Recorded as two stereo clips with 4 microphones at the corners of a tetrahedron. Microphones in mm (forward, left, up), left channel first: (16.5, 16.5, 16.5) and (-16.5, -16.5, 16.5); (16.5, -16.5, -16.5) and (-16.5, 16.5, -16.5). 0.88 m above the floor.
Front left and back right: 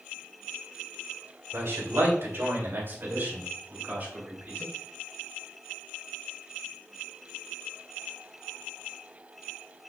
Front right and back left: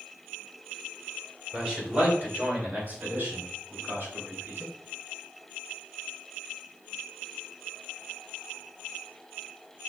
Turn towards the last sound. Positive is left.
turn(degrees=165)